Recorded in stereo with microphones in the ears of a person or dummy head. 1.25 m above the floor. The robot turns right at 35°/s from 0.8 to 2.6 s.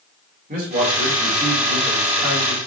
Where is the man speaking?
35° right, 3.5 m; by 2.6 s 25° left, 3.5 m.